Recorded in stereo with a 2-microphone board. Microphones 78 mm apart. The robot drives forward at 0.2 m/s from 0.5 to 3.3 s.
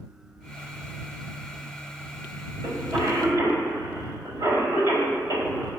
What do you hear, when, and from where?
2.6 s a cough: 50° right (ahead or behind), 4 m